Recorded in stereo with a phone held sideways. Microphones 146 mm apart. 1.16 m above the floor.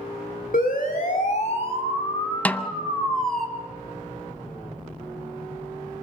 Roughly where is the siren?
Left.